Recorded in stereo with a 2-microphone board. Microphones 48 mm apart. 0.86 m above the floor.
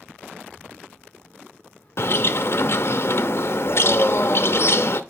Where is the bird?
60° left (ahead or behind), 0.6 m.